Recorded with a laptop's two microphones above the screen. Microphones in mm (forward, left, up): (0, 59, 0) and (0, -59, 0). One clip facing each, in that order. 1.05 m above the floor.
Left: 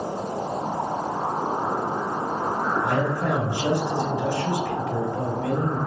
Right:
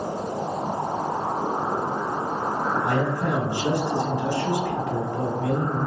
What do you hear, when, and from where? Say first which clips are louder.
2.8 s a man speaking: even; 20° left (ahead or behind), 1.5 m